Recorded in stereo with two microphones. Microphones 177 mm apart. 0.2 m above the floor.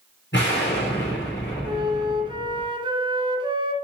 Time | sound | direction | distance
0.3 | an explosion | 70° left (ahead or behind) | 3 m
1.6 | a flute | 25° right (ahead or behind) | 1.0 m